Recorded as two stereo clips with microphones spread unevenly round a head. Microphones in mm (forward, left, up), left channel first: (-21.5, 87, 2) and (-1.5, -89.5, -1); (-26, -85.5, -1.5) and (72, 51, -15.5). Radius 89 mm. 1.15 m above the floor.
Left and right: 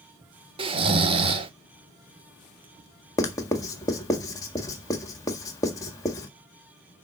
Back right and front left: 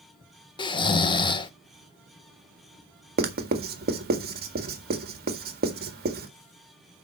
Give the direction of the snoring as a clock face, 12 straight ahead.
4 o'clock.